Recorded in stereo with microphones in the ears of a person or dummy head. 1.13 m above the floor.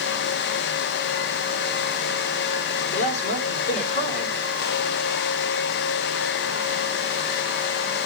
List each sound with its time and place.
2.9 s a man speaking: 40° left (ahead or behind), 4 m